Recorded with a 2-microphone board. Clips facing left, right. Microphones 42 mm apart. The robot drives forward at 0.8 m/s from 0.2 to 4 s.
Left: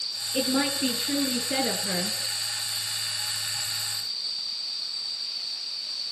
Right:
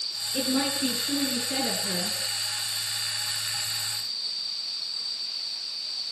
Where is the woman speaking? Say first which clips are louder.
Left 1 dB; 25° left (ahead or behind), 2.5 m; by 2.2 s 40° left (ahead or behind), 1.6 m.